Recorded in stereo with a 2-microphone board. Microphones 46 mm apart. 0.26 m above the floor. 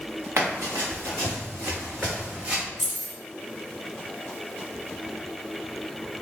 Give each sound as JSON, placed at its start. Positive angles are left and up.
{"t": 0.4, "sound": "running footsteps", "side_deg": -85, "distance_m": 1.5}
{"t": 2.8, "sound": "keys jangling", "side_deg": -10, "distance_m": 0.9}